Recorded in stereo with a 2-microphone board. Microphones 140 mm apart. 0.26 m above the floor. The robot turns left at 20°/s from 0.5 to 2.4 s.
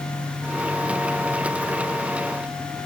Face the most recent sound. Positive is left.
No sound to turn to.